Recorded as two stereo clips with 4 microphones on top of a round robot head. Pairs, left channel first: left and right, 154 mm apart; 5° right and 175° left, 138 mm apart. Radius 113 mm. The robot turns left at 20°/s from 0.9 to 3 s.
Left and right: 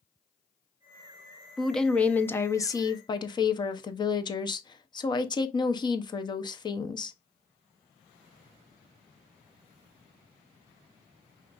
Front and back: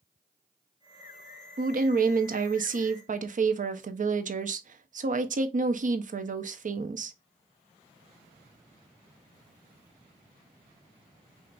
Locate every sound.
1.6 s a woman speaking: straight behind, 0.9 m; by 7.2 s 150° left, 0.9 m